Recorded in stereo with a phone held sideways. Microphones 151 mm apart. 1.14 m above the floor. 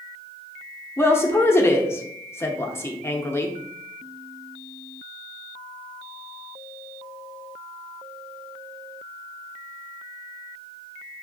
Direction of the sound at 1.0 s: 15° left (ahead or behind).